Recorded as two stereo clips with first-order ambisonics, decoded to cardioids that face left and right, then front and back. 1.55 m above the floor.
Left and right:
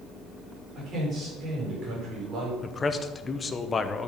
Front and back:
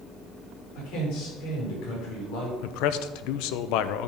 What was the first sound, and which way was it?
A man speaking, 30° right.